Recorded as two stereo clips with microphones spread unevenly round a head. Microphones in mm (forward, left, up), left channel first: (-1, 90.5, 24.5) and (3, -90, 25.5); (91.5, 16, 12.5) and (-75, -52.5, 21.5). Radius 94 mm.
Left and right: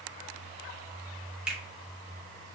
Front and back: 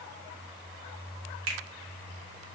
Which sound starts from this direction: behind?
A finger snap, at 1.5 s.